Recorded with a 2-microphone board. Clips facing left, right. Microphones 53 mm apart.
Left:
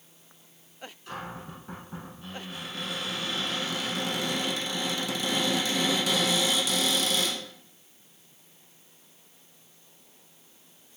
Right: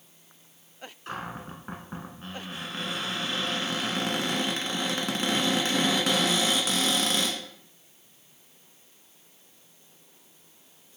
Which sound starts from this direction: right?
A cupboard door, at 1.1 s.